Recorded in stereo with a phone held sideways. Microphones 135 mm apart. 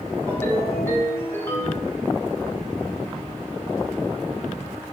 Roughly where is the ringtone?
Centre.